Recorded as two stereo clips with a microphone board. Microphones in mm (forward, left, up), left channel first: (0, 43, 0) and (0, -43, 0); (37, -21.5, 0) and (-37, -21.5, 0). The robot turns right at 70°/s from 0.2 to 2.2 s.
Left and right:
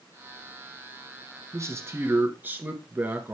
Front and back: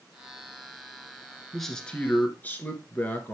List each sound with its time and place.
1.5 s a man speaking: 90° right, 1.3 m; by 3.3 s 40° right, 1.3 m